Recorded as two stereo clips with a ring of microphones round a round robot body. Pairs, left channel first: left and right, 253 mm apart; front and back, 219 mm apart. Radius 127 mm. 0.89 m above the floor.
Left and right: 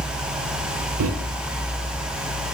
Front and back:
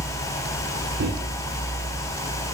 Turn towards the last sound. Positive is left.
turn(degrees=-130)